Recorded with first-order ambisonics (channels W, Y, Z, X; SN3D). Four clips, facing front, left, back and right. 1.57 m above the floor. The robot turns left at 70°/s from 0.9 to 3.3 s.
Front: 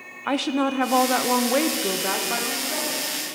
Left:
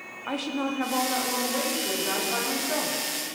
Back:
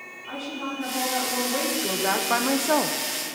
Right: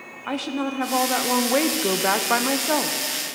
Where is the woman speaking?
10° right, 0.8 m; by 3.0 s 155° right, 0.8 m.